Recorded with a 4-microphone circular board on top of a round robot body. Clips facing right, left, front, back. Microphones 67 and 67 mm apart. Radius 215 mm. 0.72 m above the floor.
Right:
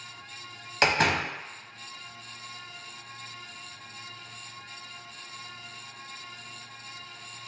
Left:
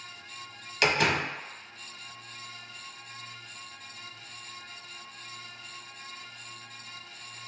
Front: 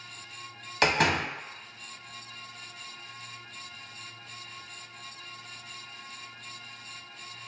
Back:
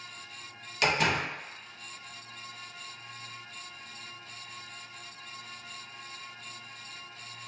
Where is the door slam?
45° right, 0.8 m.